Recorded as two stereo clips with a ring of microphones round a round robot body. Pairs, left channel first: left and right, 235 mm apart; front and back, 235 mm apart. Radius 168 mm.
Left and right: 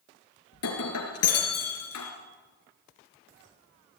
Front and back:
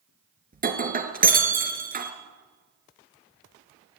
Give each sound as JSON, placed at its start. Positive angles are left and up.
{"t": 0.5, "sound": "breaking glass", "azimuth_deg": 130, "distance_m": 3.0}